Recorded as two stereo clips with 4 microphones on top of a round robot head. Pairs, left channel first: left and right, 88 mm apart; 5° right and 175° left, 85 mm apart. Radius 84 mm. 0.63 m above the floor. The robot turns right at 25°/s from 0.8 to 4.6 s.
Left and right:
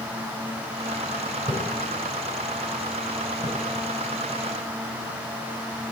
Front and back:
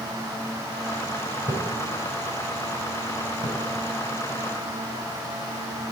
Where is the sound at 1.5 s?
130° right, 3 m.